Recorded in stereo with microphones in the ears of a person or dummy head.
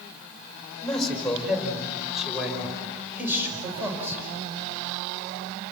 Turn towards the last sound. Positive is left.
turn(degrees=-15)  # may be behind; listen again after turning